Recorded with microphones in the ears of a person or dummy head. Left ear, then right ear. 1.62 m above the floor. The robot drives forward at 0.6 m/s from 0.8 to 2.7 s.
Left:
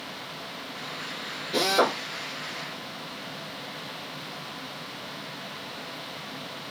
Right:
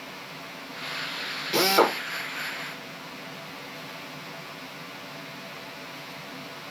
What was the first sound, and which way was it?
A drill, 55° right (ahead or behind).